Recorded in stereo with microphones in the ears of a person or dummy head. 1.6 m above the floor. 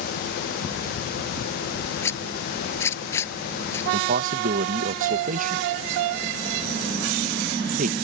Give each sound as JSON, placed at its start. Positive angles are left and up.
{"t": 2.0, "sound": "a zipper", "side_deg": 15}
{"t": 3.9, "sound": "a man speaking", "side_deg": -45}